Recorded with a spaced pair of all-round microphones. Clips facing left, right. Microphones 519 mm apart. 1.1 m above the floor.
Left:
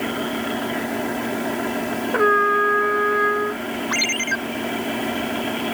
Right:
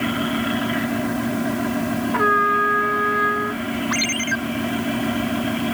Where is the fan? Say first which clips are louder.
Right 3 dB; 30° right (ahead or behind).